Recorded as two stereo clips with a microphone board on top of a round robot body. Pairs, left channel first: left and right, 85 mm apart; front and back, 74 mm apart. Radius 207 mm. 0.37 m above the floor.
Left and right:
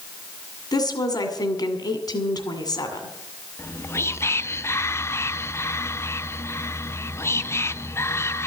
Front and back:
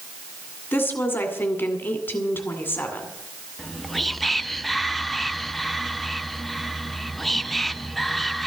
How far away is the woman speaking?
About 2.5 m.